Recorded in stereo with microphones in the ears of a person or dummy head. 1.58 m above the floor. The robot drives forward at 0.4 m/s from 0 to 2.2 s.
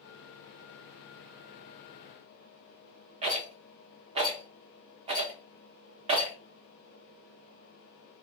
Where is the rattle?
30° right (ahead or behind), 0.6 m.